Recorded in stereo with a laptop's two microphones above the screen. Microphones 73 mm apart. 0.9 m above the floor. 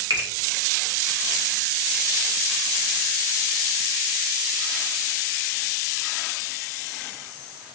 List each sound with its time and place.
0.1 s a finger snap: 85° right, 0.9 m